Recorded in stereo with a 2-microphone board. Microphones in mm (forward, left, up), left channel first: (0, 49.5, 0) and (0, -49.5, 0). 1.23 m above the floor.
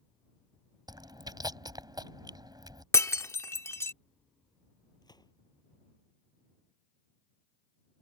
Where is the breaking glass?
30° left (ahead or behind).